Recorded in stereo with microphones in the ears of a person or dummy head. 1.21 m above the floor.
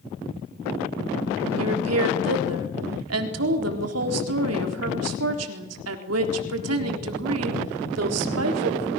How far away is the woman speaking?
About 4 m.